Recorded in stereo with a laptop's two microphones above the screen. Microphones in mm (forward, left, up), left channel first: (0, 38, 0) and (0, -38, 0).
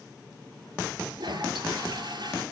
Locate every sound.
1.1 s a toilet flushing: 75° right (ahead or behind), 3.5 m